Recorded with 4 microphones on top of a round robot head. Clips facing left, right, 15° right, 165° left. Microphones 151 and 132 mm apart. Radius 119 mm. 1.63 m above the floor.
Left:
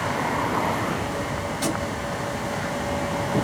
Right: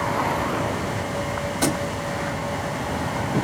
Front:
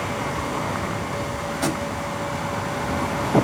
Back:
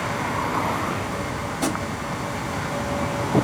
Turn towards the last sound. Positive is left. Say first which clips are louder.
# right 4 dB, even
turn(degrees=-120)